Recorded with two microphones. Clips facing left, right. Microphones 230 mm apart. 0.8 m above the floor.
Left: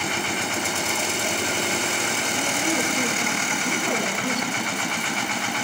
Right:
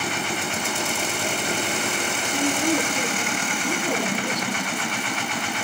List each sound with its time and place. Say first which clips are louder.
2.3 s a woman speaking: right 5 dB; 15° right (ahead or behind), 8.5 m